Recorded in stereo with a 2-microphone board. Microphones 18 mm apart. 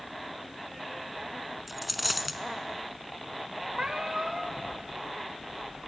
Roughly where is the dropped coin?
Centre.